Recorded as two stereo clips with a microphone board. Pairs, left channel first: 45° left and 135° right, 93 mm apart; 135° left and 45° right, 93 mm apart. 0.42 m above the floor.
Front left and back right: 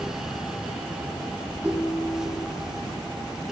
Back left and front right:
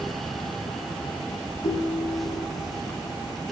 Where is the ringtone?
150° left, 2.5 m.